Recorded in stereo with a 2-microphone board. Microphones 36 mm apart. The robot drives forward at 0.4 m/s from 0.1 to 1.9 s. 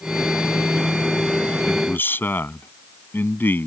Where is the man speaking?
75° left (ahead or behind).